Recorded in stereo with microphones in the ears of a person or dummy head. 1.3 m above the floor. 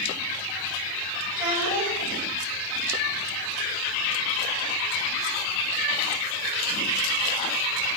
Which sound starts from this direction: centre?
A child speaking, at 1.3 s.